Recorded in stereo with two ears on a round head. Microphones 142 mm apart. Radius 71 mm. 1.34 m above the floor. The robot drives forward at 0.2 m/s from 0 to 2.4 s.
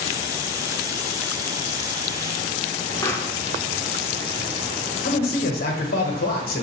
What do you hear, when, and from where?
3.0 s a pop: 15° left (ahead or behind), 0.7 m
5.0 s a man speaking: 60° left (ahead or behind), 1.0 m